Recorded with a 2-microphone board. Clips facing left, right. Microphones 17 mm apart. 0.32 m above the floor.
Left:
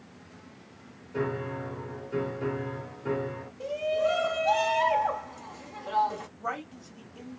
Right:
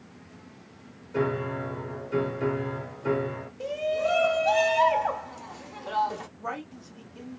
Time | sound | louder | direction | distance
1.1 | a piano | right 4 dB | 50° right (ahead or behind) | 1.1 m
3.6 | a shout | even | 25° right (ahead or behind) | 0.9 m
6.4 | a woman speaking | left 1 dB | 5° left (ahead or behind) | 2.0 m